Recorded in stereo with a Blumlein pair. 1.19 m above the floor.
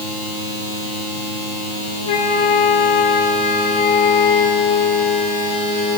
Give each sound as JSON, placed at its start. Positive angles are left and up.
{"t": 2.1, "sound": "a flute", "azimuth_deg": 60, "distance_m": 2.0}